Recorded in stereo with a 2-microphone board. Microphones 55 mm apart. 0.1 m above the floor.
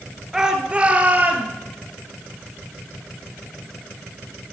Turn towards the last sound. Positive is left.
turn(degrees=-35)  # may be behind; listen again after turning